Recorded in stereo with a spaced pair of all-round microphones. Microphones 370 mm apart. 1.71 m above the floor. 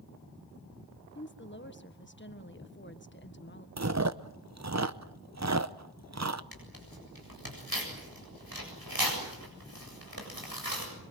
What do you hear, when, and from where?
1.1 s a woman speaking: 30° left (ahead or behind), 1.6 m
3.8 s chewing: 45° right (ahead or behind), 0.8 m
6.5 s tearing paper: 70° right (ahead or behind), 7.5 m